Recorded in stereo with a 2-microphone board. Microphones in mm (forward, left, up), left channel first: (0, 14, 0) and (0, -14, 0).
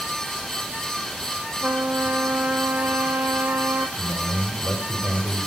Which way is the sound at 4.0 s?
50° left (ahead or behind).